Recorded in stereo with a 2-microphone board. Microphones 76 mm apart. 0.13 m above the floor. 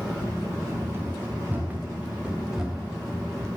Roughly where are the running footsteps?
Right.